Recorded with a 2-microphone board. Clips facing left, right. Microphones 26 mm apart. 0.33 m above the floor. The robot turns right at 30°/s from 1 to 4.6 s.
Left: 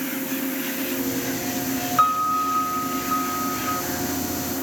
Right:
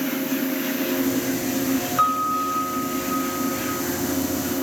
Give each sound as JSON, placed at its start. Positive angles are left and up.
{"t": 2.0, "sound": "a piano", "azimuth_deg": 20, "distance_m": 0.6}